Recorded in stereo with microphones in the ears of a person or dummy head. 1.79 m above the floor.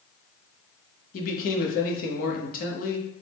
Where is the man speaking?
50° left (ahead or behind), 0.9 m.